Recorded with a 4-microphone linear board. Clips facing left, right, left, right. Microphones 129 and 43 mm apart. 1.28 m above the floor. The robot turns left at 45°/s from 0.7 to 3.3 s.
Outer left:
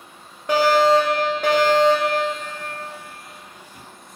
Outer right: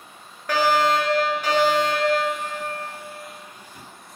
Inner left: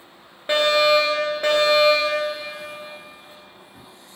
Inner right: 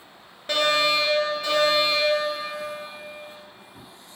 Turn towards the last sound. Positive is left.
turn(degrees=40)